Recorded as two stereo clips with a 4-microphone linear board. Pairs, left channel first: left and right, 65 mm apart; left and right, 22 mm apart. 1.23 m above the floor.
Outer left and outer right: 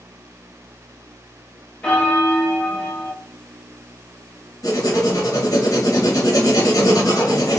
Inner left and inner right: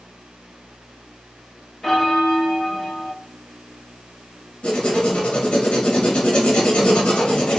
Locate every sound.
1.8 s a bell: 15° left (ahead or behind), 0.6 m
4.6 s writing: 70° left (ahead or behind), 0.9 m